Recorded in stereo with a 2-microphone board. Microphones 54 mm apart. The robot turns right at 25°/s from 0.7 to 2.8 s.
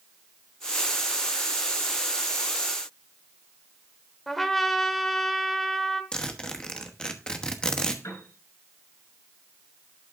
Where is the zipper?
15° left (ahead or behind), 1.1 m.